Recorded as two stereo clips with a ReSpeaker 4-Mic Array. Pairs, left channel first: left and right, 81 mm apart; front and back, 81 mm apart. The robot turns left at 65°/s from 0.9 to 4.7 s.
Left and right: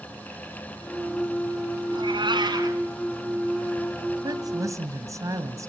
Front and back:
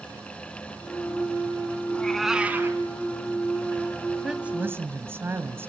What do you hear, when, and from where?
1.9 s a cat meowing: 70° right, 1.6 m; by 2.8 s 130° right, 1.6 m
4.2 s a woman speaking: 95° right, 1.6 m; by 5.7 s 125° right, 1.6 m